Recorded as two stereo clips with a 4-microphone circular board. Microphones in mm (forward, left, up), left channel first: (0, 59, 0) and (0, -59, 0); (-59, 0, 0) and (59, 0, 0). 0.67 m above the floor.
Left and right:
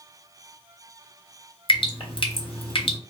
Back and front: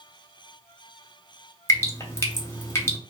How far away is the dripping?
About 0.7 m.